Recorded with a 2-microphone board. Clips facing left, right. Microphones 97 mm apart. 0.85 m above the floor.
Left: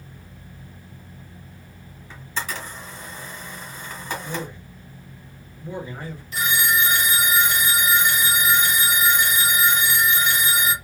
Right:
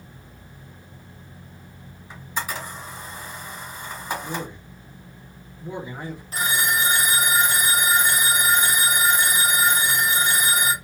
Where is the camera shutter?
15° right (ahead or behind), 1.4 m.